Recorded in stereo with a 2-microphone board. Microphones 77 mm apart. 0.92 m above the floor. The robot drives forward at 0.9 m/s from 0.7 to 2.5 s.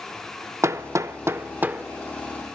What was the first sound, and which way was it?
Hammering, 40° right (ahead or behind).